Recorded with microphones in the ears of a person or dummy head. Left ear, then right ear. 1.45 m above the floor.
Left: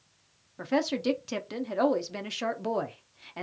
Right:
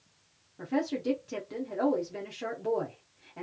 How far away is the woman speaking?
About 0.7 m.